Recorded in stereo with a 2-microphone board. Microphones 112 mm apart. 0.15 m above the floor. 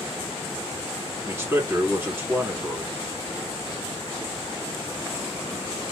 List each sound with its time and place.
1.2 s a man speaking: 25° right (ahead or behind), 2.0 m